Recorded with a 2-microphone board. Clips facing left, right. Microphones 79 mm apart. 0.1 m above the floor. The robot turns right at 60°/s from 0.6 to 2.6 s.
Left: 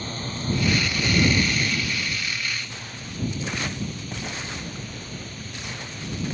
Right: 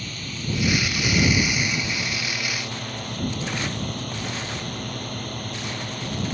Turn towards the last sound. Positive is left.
turn(degrees=-100)